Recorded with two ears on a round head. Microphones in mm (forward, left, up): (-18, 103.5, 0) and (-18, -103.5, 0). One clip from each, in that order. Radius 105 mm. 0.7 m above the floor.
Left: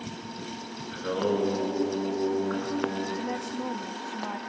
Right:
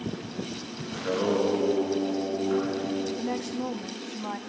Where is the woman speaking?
Centre (ahead or behind), 0.7 m.